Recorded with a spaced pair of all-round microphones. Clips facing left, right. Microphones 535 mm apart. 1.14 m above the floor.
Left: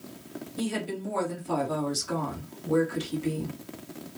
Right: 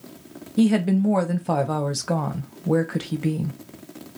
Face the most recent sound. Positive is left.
turn(degrees=-80)